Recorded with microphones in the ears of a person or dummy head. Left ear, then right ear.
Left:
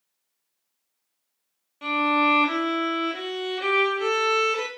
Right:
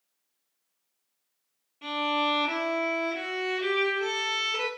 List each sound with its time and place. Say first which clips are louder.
1.8 s a violin: left 6 dB; 45° left (ahead or behind), 0.8 m